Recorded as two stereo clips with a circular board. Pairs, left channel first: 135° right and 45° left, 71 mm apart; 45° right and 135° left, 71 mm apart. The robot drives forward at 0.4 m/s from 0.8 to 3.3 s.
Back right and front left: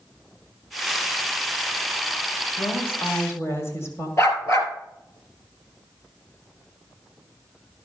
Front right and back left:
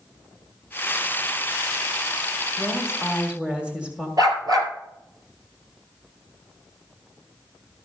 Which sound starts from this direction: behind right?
A woman speaking, at 2.6 s.